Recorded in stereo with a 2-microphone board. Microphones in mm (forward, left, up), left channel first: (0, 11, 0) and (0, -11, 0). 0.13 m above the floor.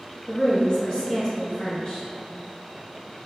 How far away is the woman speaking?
About 1.4 m.